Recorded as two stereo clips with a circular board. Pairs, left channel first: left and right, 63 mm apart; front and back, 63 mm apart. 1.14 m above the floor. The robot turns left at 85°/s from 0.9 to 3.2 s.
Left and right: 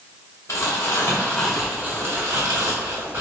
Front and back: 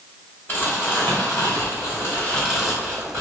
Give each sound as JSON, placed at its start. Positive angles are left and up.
{"t": 0.5, "sound": "crumpling", "azimuth_deg": 55, "distance_m": 2.0}